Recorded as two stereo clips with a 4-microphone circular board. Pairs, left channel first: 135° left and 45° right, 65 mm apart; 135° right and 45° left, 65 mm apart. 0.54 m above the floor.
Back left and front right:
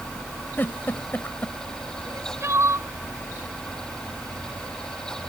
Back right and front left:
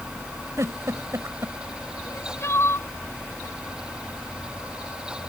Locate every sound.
0.6 s a giggle: 80° left
2.0 s crying: 90° right